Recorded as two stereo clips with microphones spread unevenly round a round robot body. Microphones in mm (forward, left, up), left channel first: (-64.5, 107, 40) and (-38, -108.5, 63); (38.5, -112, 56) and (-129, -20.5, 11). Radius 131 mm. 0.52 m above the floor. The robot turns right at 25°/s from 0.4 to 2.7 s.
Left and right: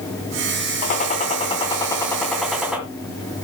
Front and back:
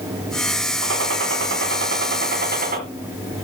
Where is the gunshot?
145° left, 4 m; by 2.8 s 170° right, 4 m.